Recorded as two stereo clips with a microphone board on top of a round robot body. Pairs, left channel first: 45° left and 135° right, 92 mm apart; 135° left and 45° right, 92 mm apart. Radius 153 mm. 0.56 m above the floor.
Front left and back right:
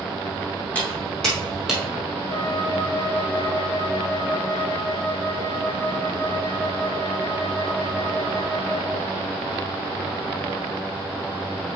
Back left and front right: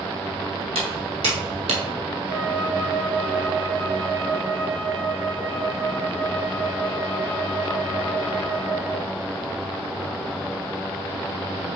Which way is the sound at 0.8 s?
30° right.